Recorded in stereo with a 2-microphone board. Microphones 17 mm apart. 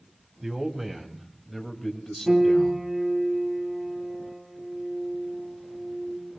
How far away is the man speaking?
About 2.5 m.